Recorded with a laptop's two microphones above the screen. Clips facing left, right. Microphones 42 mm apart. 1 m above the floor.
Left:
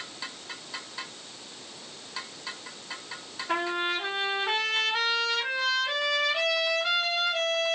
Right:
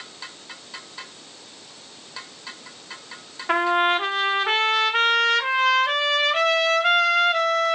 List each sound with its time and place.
3.5 s a trumpet: 60° right (ahead or behind), 0.9 m